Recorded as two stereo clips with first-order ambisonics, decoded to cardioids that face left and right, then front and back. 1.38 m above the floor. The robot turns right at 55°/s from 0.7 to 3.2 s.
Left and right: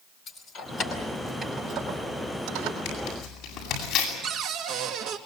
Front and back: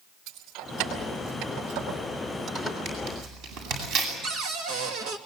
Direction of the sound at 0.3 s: 140° left.